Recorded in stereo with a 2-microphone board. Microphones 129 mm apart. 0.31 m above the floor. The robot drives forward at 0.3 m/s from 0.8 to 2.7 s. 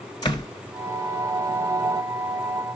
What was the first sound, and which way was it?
A door slam, 35° left (ahead or behind).